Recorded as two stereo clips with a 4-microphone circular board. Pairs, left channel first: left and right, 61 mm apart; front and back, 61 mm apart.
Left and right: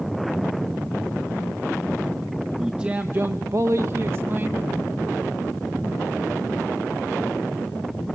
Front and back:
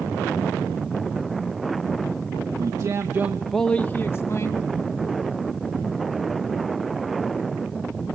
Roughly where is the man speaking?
Behind.